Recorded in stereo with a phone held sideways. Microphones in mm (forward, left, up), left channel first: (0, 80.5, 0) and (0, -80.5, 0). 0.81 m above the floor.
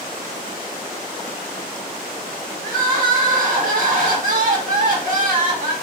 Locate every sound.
2.6 s crying: 55° right (ahead or behind), 1.0 m